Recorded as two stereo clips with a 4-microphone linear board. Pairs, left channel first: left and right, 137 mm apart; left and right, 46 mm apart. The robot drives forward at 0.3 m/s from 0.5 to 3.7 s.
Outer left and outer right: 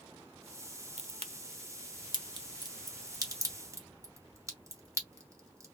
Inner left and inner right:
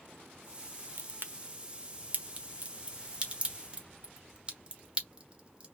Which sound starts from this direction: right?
A crack, at 1.0 s.